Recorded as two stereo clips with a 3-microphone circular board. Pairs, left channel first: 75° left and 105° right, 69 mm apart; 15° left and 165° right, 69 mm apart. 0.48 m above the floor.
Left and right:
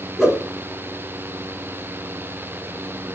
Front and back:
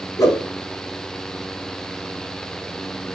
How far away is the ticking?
I don't hear ticking.